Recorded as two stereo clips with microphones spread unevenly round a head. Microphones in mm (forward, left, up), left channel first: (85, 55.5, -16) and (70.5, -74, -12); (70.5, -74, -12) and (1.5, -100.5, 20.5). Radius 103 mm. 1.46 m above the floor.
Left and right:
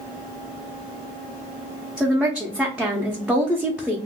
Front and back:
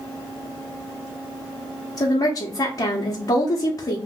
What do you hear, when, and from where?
2.0 s a woman speaking: 10° right, 0.8 m